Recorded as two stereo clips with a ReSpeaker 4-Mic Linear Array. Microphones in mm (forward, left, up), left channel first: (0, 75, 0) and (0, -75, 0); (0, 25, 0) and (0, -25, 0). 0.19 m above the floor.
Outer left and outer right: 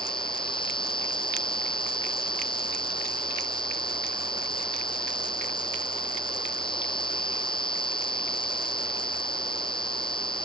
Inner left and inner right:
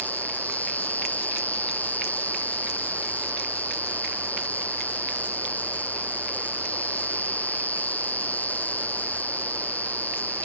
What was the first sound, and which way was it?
An insect, 35° left (ahead or behind).